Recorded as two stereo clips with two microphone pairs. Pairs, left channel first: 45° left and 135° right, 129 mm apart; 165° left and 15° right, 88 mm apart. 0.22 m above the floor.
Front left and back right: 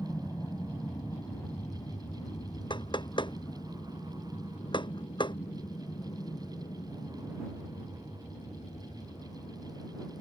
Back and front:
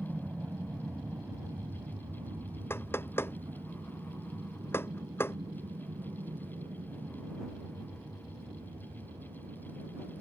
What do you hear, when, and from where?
0.0 s an aircraft: 30° left; by 10.2 s straight ahead
2.7 s knocking: 100° left